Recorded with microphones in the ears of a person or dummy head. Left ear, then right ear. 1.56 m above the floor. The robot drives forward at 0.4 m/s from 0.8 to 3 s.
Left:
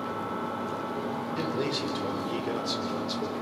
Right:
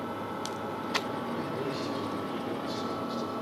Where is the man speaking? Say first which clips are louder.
Left 4 dB; 35° left (ahead or behind), 5 m; by 3.3 s 40° left (ahead or behind), 4.5 m.